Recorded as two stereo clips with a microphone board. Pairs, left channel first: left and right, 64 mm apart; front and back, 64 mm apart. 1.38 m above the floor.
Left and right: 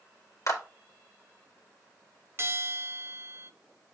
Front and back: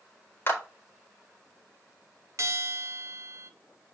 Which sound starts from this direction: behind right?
A bell, at 2.4 s.